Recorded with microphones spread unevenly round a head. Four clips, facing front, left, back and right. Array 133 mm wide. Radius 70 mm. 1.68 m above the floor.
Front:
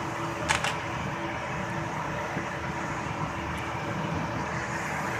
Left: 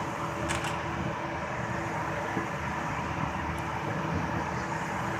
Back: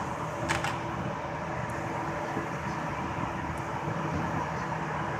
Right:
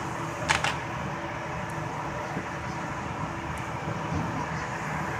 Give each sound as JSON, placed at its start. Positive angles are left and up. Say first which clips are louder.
{"t": 0.5, "sound": "a camera shutter", "louder": "right 4 dB, front 2 dB", "azimuth_deg": -65, "distance_m": 1.2}